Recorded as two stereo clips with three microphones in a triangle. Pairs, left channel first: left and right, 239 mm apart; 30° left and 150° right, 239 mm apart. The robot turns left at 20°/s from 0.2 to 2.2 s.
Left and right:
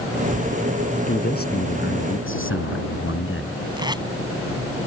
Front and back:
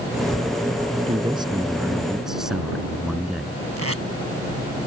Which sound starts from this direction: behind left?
A man speaking, at 1.1 s.